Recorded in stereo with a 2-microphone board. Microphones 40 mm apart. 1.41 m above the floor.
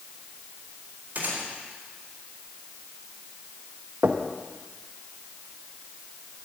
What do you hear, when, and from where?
1.1 s a gunshot: 45° right (ahead or behind), 4 m
4.0 s knocking: 50° right (ahead or behind), 1.0 m